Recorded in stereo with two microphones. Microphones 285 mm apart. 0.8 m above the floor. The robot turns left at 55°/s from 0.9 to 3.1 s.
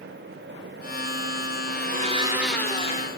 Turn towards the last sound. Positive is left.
turn(degrees=145)